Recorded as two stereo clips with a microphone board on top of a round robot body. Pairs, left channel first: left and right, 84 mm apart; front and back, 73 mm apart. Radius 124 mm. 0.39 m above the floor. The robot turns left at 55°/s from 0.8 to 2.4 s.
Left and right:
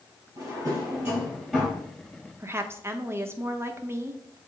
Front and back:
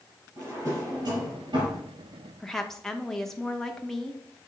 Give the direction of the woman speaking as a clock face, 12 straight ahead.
3 o'clock.